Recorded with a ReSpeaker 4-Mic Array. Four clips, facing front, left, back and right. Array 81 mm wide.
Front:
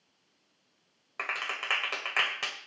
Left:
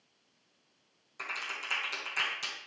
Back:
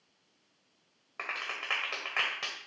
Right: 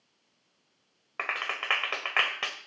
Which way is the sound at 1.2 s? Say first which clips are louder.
Right 7 dB, front 3 dB; 80° right.